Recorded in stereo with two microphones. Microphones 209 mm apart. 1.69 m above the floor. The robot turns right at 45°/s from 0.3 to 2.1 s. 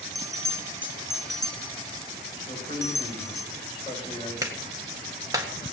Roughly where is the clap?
Centre.